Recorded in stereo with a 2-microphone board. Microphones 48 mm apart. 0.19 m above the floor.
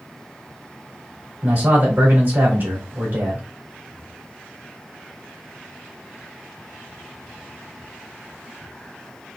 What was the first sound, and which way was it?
A man speaking, 50° right (ahead or behind).